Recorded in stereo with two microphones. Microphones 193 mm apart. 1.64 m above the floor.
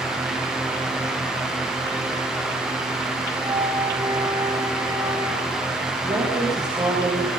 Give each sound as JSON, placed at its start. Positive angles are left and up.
{"t": 3.4, "sound": "a flute", "side_deg": -20, "distance_m": 3.5}
{"t": 6.0, "sound": "a woman speaking", "side_deg": -40, "distance_m": 6.5}